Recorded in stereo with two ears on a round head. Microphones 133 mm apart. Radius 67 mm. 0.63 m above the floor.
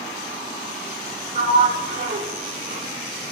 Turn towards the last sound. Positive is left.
turn(degrees=-50)  # may be behind; listen again after turning